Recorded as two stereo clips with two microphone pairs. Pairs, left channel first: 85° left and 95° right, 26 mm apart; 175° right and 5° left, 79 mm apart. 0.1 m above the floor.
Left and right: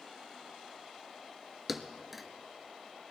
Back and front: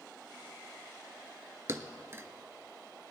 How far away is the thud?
About 0.7 m.